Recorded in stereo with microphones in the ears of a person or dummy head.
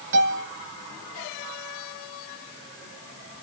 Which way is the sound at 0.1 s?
70° right (ahead or behind).